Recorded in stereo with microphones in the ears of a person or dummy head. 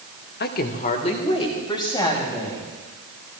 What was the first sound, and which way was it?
A woman speaking, 45° left (ahead or behind).